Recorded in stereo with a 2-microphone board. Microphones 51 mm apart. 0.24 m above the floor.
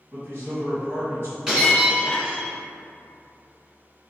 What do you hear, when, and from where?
0.1 s a man speaking: 45° right (ahead or behind), 2.0 m
1.5 s breaking glass: 15° right (ahead or behind), 1.7 m